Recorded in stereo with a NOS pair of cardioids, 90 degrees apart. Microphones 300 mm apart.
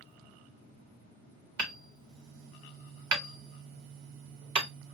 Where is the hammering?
65° right, 1.7 m.